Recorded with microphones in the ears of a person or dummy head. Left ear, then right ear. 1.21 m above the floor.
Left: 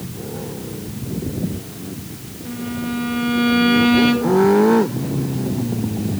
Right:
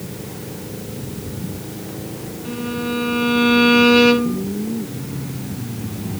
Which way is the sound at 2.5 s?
5° right (ahead or behind).